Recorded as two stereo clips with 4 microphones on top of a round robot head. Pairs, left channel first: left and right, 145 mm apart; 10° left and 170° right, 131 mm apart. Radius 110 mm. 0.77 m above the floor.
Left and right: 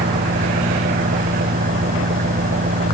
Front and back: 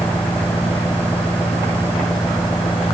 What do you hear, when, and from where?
0.0 s an engine running: 70° right